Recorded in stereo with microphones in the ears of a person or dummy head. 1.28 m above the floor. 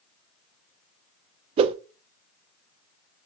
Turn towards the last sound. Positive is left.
turn(degrees=-35)  # may be behind; listen again after turning